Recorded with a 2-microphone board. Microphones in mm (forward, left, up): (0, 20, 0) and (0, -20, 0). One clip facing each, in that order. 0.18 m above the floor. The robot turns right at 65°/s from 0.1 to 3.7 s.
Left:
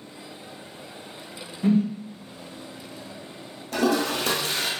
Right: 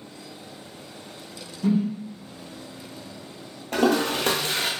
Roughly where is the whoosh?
Left.